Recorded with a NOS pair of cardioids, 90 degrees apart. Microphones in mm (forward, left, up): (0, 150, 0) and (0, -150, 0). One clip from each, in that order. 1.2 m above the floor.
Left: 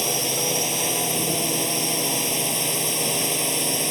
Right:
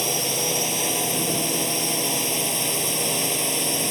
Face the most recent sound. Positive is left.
turn(degrees=15)